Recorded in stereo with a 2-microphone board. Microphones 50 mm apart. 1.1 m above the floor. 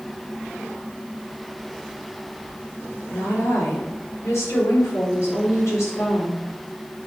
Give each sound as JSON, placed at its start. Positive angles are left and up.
{"t": 3.1, "sound": "a woman speaking", "side_deg": 80, "distance_m": 4.0}